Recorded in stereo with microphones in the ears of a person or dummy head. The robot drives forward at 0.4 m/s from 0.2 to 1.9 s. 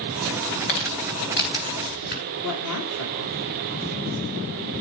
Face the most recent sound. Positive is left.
turn(degrees=75)  # may be behind; listen again after turning